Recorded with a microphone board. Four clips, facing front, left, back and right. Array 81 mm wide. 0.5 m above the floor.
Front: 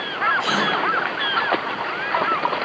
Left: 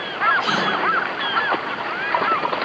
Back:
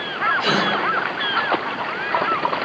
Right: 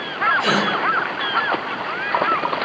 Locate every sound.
0.4 s a gasp: 120° right, 0.8 m